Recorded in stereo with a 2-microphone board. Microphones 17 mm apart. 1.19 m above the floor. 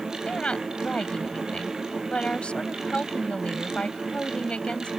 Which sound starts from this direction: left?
A woman speaking, at 0.3 s.